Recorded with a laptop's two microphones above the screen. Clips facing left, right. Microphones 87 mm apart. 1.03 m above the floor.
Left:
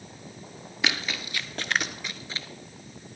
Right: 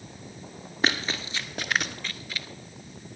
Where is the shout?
I don't hear a shout.